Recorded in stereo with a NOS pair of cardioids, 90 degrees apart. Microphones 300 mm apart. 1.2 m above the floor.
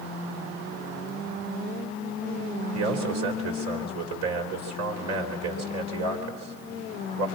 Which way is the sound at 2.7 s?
60° right.